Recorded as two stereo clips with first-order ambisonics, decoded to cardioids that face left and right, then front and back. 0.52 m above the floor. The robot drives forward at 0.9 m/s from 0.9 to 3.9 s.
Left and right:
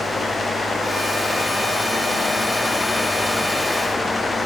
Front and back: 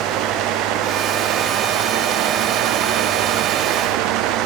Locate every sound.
Only background noise.